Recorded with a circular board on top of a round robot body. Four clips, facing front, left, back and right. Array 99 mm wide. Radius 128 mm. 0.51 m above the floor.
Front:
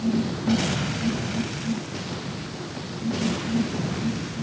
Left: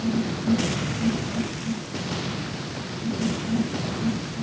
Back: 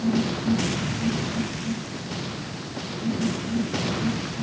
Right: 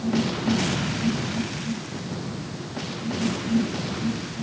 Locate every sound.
Only background noise.